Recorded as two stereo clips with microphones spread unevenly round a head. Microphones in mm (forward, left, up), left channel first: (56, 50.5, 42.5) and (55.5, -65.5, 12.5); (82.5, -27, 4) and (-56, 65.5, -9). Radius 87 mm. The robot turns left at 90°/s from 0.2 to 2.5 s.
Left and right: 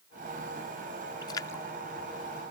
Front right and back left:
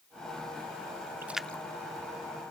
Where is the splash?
70° left; by 1.6 s 30° left.